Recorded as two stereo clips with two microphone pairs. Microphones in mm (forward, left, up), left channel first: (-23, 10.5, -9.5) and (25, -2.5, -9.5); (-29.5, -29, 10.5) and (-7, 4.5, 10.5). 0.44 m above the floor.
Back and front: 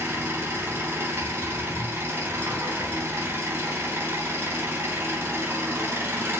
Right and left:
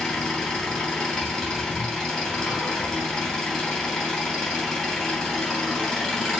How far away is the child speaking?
I don't hear a child speaking.